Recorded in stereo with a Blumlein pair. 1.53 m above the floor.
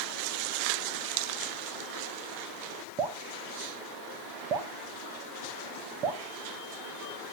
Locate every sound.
3.0 s dripping: 35° right, 1.4 m